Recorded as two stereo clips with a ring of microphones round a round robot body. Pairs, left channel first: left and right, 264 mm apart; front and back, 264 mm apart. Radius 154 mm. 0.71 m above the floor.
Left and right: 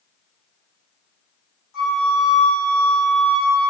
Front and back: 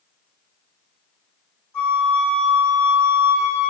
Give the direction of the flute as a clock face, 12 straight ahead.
9 o'clock.